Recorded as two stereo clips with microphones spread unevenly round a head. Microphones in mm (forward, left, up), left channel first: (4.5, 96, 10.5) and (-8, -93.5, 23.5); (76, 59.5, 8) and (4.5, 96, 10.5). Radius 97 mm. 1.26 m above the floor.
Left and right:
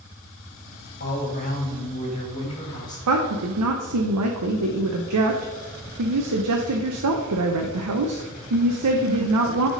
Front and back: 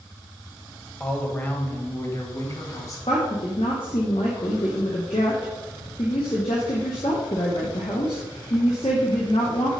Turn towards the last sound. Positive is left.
turn(degrees=-90)